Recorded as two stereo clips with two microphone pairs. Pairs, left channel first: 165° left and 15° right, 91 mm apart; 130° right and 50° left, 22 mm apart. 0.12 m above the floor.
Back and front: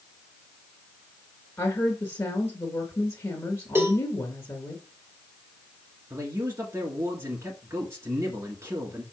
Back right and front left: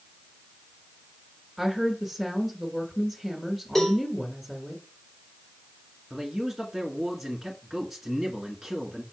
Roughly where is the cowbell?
Right.